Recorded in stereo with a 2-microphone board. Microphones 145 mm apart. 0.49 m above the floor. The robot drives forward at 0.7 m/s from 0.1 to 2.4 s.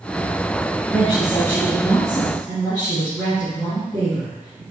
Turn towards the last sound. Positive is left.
turn(degrees=25)  # may be behind; listen again after turning